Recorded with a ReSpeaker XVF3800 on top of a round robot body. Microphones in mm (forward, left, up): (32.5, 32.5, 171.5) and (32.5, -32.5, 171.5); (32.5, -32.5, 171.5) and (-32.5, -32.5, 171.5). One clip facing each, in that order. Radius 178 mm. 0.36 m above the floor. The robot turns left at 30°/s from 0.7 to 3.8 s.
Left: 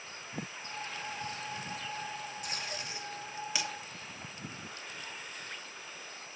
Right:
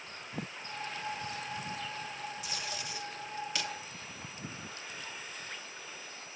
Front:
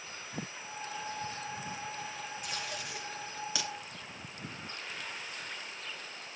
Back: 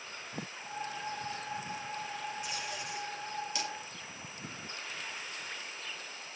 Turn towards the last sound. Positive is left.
turn(degrees=0)